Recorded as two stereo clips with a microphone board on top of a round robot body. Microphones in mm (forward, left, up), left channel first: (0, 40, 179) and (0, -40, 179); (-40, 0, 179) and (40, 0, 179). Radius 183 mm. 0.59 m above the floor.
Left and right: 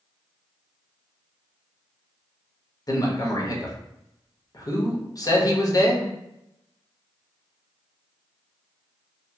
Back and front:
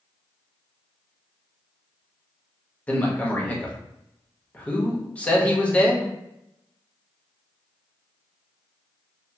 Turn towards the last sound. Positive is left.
turn(degrees=110)